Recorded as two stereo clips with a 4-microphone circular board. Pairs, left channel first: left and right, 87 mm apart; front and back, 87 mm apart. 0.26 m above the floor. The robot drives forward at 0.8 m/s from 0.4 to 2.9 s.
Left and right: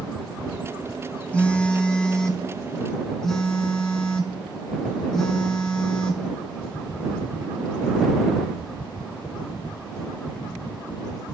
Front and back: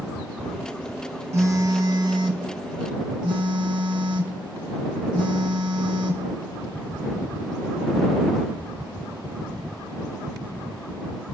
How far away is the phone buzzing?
About 0.8 m.